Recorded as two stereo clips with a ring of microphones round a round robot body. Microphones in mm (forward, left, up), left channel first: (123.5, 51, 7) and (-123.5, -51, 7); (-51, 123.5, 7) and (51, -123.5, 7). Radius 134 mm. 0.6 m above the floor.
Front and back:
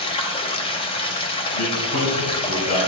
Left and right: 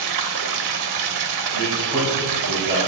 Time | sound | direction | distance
0.0 | running water | 50° right | 1.2 m
1.5 | a man speaking | 5° right | 4 m